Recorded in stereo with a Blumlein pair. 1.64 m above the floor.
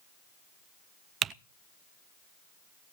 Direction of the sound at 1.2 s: 25° right.